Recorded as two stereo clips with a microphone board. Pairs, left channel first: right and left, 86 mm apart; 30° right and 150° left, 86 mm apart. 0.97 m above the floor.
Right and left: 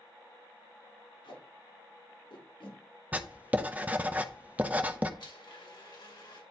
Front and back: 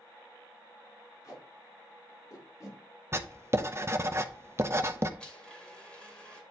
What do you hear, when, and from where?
1.2 s tape being pulled: 85° right, 6 m
3.1 s writing: 145° left, 0.7 m
5.2 s a blender: 110° right, 2.5 m